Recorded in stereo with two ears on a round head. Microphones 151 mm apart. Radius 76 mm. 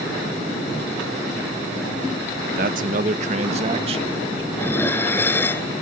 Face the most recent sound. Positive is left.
turn(degrees=15)  # may be behind; listen again after turning